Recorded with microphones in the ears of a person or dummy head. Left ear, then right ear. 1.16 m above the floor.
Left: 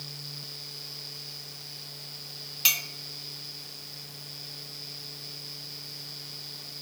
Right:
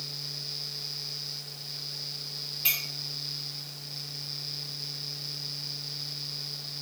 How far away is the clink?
About 0.5 m.